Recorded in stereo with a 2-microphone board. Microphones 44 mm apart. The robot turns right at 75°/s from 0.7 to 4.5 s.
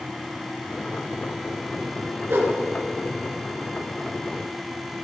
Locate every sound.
2.3 s a whoosh: 60° right (ahead or behind), 2.5 m; by 2.5 s 75° right (ahead or behind), 2.5 m